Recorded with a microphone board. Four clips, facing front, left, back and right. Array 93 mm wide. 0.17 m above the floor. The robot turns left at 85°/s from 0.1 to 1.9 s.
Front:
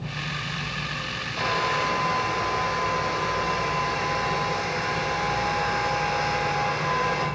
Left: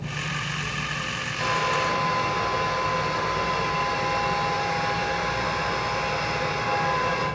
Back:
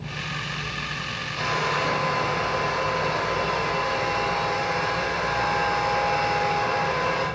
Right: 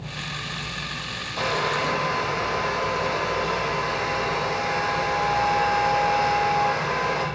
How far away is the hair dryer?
About 5.5 m.